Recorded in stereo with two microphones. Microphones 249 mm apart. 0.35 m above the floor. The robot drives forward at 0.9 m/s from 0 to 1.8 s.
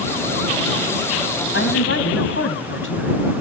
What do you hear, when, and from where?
1.5 s a woman speaking: 55° left (ahead or behind), 3 m